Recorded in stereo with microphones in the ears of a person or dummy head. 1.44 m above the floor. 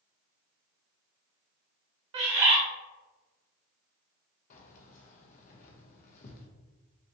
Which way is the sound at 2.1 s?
35° right (ahead or behind).